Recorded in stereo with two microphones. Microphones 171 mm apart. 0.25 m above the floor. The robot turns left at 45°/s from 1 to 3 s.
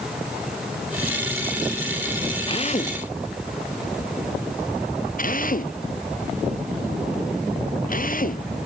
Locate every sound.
2.5 s a drill: 30° left (ahead or behind); by 8.5 s 55° left (ahead or behind)